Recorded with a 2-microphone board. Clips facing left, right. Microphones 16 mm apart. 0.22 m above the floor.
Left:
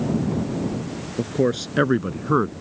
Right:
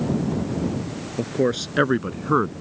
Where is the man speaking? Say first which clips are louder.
Even; 10° right (ahead or behind).